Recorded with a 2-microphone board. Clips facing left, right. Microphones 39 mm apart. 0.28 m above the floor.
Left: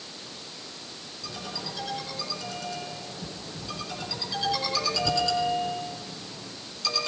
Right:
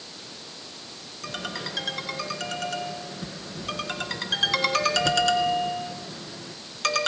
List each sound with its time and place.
1.2 s a ringtone: 60° right (ahead or behind), 3 m